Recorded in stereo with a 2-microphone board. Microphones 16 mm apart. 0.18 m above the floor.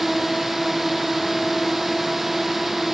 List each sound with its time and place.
0.0 s a drone: 20° right (ahead or behind)